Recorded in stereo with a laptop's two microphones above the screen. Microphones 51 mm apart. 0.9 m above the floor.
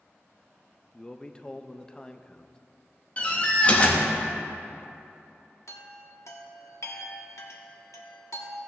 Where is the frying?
I don't hear frying.